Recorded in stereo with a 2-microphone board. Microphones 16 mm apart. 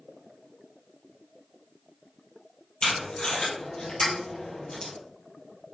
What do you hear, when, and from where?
2.8 s tape being pulled: 65° left (ahead or behind), 2 m